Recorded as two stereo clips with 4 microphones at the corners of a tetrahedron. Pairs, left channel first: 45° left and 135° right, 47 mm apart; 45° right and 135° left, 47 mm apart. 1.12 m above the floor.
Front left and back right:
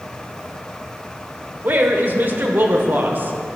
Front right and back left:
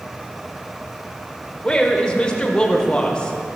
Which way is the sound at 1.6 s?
110° right.